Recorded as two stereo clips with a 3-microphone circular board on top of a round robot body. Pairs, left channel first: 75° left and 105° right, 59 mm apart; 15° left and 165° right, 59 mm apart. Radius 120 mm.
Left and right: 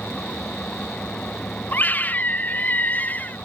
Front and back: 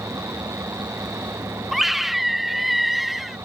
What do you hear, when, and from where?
0.0 s an engine running: 150° left
1.7 s a scream: 110° left